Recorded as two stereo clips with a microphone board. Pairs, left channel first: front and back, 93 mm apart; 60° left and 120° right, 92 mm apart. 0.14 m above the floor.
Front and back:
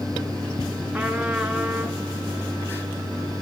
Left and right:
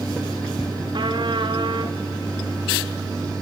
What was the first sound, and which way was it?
A trumpet, 105° right.